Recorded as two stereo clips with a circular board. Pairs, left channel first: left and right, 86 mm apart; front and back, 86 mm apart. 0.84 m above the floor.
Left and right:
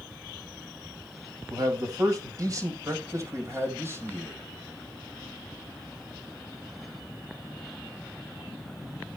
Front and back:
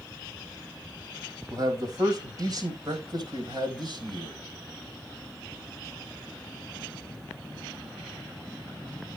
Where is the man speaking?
130° right, 5 m; by 4.4 s 150° right, 4.5 m.